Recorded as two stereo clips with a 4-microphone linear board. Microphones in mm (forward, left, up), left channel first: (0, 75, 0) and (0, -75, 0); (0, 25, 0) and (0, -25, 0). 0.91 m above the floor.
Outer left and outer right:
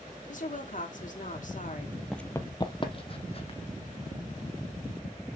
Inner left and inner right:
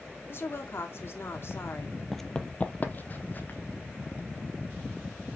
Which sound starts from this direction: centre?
Running footsteps, at 2.1 s.